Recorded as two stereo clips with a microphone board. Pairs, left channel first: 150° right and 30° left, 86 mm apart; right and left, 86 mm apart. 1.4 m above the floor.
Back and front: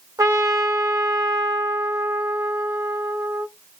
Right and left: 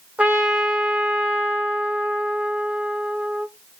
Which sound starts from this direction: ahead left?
A trumpet, at 0.2 s.